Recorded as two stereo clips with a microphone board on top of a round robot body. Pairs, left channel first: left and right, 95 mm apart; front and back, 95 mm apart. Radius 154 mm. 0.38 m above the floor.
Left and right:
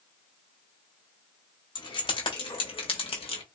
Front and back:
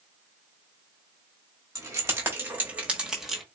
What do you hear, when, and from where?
1.8 s keys jangling: 125° left, 2.0 m; by 3.4 s 90° left, 1.6 m